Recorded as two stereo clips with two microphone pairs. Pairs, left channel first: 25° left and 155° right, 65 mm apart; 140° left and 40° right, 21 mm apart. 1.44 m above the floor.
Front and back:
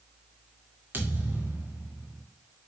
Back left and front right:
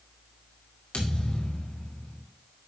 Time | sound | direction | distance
0.9 | a thud | 150° left | 2 m